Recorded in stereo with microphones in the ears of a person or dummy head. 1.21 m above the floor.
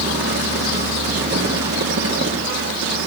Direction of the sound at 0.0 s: 60° right (ahead or behind).